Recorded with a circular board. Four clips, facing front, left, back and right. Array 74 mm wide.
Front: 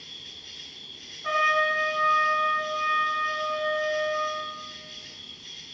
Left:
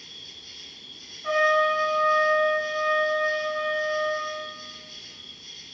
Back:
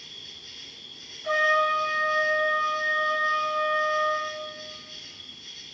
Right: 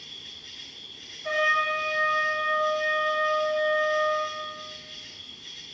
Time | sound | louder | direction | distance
0.0 | an insect | right 1 dB, even | 60° right | 1.1 m
1.2 | a trumpet | left 4 dB, back 1 dB | 45° left | 1.7 m